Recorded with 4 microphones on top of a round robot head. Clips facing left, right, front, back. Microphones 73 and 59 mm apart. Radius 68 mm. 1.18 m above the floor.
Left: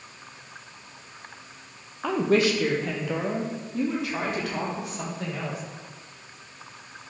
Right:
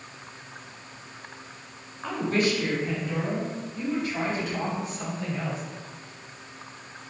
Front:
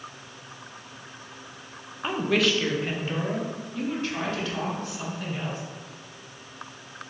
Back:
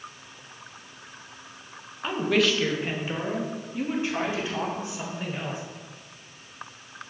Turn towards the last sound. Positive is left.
turn(degrees=110)